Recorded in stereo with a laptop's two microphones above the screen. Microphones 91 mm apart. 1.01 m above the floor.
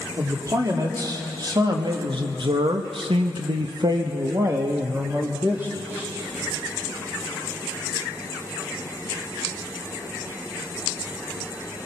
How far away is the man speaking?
About 2.5 m.